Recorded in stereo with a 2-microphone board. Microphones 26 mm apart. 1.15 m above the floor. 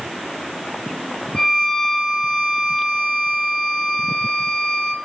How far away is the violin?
About 1.8 m.